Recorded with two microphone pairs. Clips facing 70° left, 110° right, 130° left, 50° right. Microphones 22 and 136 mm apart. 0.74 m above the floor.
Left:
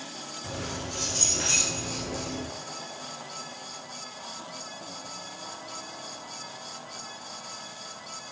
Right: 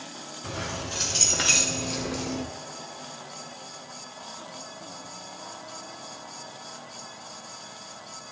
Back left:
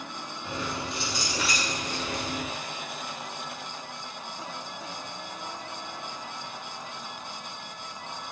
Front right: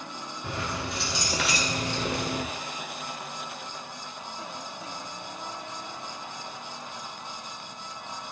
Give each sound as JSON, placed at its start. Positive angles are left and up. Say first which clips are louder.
{"t": 0.4, "sound": "keys jangling", "louder": "right 3 dB, even", "azimuth_deg": -75, "distance_m": 2.0}